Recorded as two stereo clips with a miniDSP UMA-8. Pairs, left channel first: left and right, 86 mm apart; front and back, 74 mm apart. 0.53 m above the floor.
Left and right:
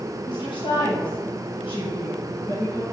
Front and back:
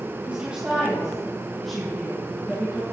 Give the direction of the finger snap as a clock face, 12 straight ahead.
I don't hear a finger snap.